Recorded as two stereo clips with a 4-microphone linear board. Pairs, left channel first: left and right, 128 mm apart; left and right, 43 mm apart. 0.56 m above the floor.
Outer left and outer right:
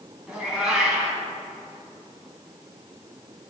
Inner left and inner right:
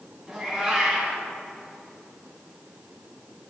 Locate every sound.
0.3 s a cat meowing: 5° right (ahead or behind), 2.5 m